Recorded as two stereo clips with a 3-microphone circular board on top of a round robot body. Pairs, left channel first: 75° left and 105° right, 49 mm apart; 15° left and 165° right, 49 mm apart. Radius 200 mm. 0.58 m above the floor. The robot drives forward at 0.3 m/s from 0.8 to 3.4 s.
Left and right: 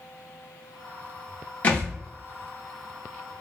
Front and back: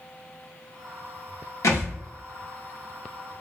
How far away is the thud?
About 0.7 m.